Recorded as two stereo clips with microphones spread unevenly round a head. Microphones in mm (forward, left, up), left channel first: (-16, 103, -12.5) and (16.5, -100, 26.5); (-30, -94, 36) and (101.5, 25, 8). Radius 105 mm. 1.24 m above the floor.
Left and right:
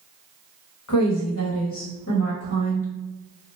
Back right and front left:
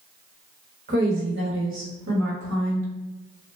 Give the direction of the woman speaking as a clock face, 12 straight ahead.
9 o'clock.